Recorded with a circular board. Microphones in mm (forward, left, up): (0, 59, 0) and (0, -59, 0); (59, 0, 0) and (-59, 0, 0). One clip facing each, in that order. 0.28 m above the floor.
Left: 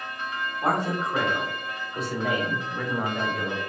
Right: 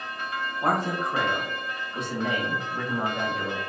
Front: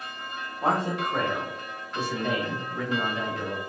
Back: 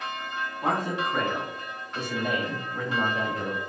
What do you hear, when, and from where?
0.6 s a man speaking: straight ahead, 1.5 m; by 3.6 s 175° left, 1.4 m